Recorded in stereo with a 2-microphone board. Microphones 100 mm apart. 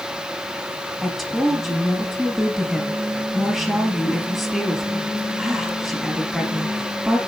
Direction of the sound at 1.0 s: Centre (ahead or behind).